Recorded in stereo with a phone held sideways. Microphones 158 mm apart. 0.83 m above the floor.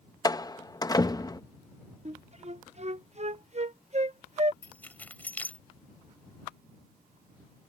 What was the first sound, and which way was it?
A door slam, 25° left (ahead or behind).